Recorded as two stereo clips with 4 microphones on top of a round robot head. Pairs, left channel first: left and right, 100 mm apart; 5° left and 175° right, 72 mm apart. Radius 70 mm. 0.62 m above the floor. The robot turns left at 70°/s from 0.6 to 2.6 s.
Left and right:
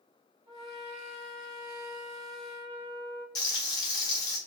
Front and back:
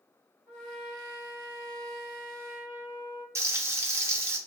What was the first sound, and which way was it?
A trumpet, 70° right.